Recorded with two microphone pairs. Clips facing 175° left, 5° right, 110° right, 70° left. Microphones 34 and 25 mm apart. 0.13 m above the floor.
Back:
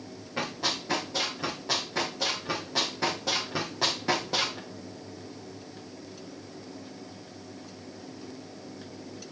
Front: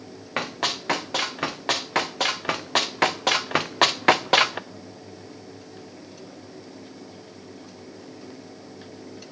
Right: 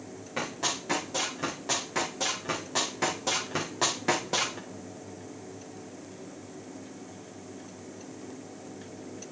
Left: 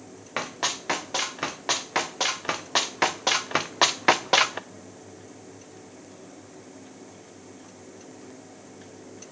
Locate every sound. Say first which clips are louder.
0.4 s running footsteps: front 4 dB, left 3 dB; 20° left, 3 m; by 4.6 s 30° left, 0.6 m